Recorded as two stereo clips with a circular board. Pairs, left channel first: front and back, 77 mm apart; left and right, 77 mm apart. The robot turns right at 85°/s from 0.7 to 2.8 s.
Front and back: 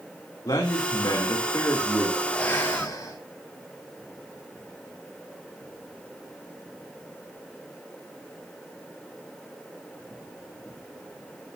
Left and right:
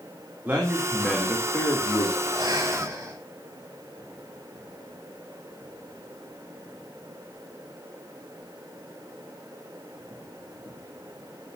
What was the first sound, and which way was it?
A man speaking, 25° right.